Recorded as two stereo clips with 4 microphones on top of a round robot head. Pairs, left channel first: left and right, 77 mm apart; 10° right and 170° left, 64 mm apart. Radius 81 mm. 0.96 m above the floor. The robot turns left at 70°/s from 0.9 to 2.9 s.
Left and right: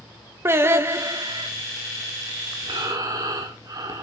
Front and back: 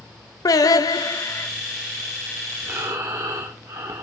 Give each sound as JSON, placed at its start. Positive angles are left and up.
{"t": 0.5, "sound": "singing", "azimuth_deg": -35, "distance_m": 0.7}
{"t": 2.6, "sound": "breathing", "azimuth_deg": -115, "distance_m": 1.3}